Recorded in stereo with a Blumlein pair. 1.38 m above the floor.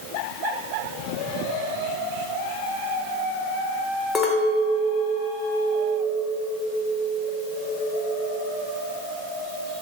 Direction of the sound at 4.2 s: 15° left.